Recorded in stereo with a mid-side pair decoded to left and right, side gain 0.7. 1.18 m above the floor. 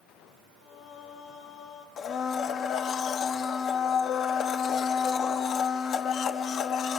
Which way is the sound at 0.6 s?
50° left.